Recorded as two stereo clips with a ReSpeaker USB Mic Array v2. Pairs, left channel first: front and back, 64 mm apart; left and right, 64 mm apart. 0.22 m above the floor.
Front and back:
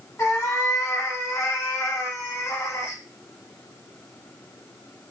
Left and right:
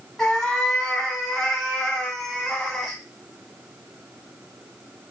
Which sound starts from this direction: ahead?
A cat meowing, at 0.2 s.